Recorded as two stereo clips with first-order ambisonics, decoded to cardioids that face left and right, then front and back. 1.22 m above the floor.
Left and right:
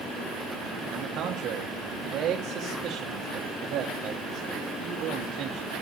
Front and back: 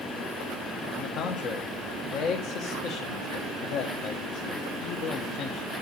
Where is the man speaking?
40° right, 1.2 m.